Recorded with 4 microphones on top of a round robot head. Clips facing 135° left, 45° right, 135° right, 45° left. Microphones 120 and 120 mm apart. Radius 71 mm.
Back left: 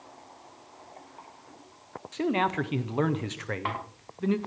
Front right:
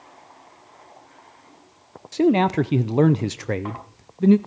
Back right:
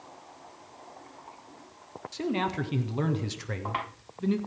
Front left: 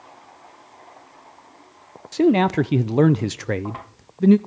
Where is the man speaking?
10° left, 0.5 m.